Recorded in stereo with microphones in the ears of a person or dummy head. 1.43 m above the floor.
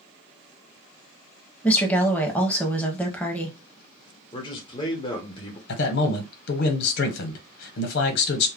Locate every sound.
1.6 s a woman speaking: 10° left (ahead or behind), 0.7 m
4.3 s a man speaking: 20° left (ahead or behind), 0.9 m
5.7 s a man speaking: 65° left (ahead or behind), 1.0 m